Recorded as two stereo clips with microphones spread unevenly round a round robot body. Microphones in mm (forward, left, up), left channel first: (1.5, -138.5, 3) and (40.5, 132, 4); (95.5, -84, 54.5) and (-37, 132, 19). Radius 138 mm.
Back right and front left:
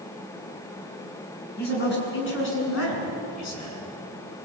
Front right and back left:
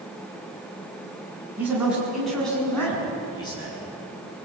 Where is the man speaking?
155° right, 7 m; by 3.8 s 130° right, 6.5 m.